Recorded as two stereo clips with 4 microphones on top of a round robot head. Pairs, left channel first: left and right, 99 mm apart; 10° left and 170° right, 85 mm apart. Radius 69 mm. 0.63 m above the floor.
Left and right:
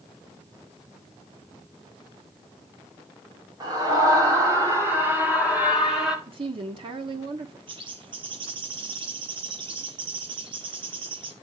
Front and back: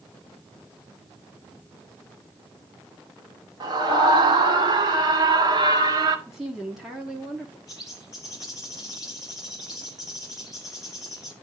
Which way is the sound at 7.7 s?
55° right.